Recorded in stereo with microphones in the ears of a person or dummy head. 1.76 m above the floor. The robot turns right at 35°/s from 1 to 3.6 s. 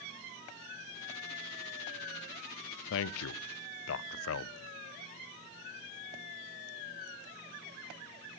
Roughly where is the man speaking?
Left.